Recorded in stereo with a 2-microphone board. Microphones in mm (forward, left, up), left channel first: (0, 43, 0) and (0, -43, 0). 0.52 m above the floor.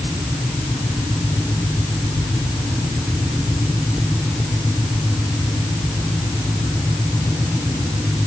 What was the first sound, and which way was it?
Only background noise.